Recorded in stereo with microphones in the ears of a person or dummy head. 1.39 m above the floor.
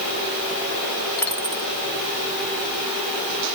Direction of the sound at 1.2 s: 15° left (ahead or behind).